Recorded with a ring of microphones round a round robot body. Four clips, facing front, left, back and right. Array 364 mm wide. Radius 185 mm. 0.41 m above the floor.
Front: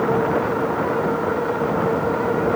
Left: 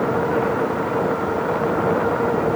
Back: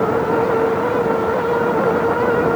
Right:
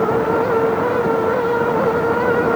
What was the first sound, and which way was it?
Only background noise.